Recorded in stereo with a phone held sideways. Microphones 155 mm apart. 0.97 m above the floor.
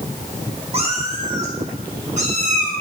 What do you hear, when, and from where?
0.7 s a cat meowing: 40° right (ahead or behind), 1.2 m; by 2.7 s 50° right (ahead or behind), 3.5 m